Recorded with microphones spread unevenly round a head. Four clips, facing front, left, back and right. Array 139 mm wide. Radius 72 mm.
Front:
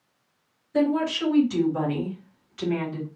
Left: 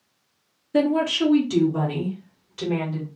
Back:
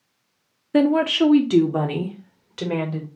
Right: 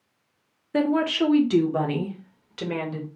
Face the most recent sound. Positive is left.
turn(degrees=-155)